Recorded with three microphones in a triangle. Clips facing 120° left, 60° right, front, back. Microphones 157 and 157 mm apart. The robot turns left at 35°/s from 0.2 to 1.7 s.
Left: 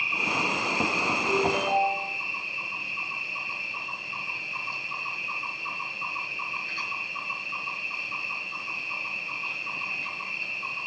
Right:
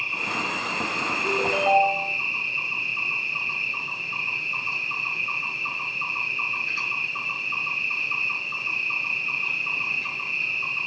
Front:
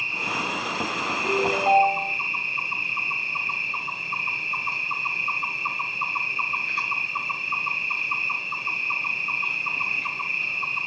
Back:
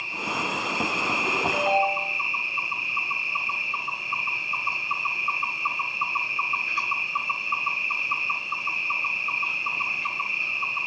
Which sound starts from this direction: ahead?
An insect, at 0.0 s.